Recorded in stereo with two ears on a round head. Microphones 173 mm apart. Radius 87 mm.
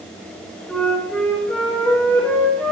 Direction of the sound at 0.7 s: 5° left (ahead or behind).